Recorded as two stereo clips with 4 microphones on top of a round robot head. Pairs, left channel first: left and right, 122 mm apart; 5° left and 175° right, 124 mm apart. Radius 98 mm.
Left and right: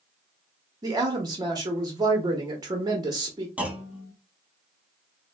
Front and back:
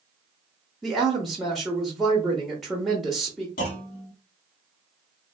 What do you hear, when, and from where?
0.8 s a woman speaking: 85° right, 0.9 m
3.6 s a clunk: 10° right, 1.0 m